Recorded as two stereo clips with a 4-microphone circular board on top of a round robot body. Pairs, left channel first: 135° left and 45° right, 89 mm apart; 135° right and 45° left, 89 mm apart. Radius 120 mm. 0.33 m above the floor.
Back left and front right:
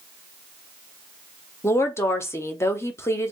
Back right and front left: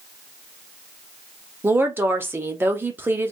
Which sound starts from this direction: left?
A woman speaking, at 1.6 s.